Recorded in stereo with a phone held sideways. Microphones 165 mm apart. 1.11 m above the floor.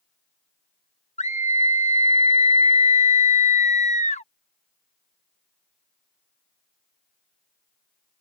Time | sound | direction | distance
1.2 | a scream | 45° left (ahead or behind) | ?